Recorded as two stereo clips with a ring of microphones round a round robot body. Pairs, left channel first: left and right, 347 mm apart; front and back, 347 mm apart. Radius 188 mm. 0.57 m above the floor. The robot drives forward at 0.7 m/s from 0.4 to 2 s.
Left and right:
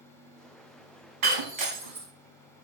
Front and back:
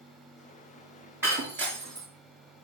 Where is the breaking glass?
95° right, 2 m; by 2.1 s 110° right, 2.5 m.